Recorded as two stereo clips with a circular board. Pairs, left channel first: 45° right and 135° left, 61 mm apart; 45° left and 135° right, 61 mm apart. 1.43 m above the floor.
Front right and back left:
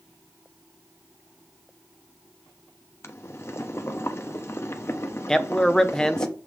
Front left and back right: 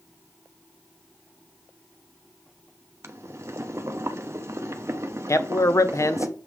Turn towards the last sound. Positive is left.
turn(degrees=35)